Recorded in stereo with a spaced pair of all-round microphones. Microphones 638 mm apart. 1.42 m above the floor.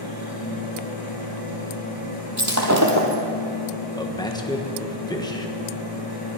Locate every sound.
0.0 s a machine running: 35° left (ahead or behind), 4.5 m
2.4 s breaking glass: 25° right (ahead or behind), 2 m
4.0 s a man speaking: 5° left (ahead or behind), 1.5 m